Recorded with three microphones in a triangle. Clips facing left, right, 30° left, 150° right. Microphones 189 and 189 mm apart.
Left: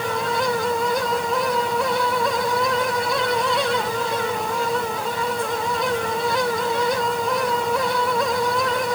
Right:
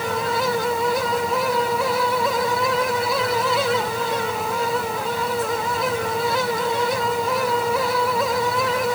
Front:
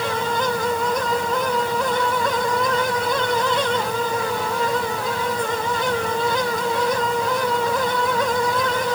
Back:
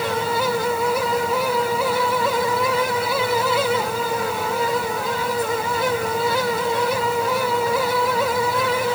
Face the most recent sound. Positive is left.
No sound to turn to.